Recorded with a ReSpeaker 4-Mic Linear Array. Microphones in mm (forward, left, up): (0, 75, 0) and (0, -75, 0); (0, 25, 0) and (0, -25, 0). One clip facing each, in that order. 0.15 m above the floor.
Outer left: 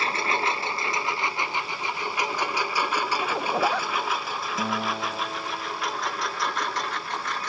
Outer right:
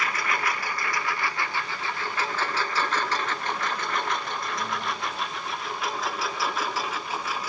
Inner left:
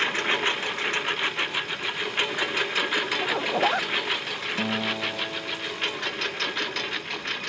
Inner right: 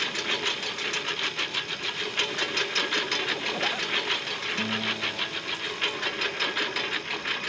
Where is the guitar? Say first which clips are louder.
Outer left 3 dB, inner left 3 dB; 70° left (ahead or behind).